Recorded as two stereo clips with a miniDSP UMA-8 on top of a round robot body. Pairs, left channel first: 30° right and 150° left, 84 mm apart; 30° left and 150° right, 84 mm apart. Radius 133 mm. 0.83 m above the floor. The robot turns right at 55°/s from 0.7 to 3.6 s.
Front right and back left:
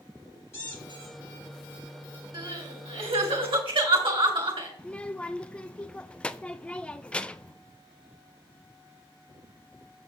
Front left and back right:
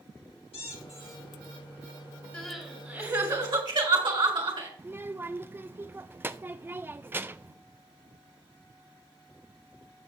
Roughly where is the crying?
Left.